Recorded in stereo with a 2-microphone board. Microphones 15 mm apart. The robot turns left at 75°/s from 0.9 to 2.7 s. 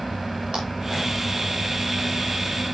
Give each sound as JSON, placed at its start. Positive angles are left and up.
{"t": 0.5, "sound": "a clap", "side_deg": -75, "distance_m": 7.0}